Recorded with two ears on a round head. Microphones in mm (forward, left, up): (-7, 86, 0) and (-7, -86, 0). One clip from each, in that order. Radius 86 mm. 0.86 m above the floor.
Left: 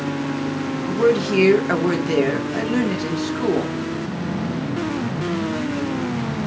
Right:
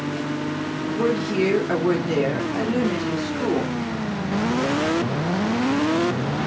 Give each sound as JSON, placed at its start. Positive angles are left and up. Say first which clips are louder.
{"t": 0.9, "sound": "a woman speaking", "louder": "left 6 dB", "side_deg": 35, "distance_m": 2.0}